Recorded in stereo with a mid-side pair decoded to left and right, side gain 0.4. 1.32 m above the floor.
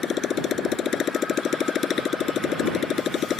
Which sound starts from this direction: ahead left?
A motorcycle, at 0.0 s.